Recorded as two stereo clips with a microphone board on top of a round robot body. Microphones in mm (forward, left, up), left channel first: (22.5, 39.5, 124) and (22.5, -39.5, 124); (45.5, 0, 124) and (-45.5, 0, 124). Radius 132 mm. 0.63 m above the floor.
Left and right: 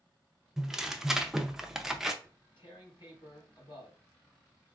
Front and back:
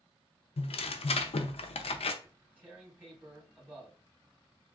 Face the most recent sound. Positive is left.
turn(degrees=105)